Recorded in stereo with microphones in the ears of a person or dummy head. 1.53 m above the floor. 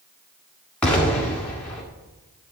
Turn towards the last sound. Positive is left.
turn(degrees=5)  # may be behind; listen again after turning